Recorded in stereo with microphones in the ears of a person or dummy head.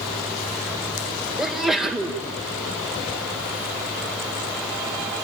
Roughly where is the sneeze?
Centre.